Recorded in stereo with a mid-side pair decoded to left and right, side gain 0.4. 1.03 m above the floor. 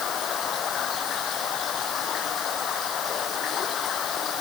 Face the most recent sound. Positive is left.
turn(degrees=60)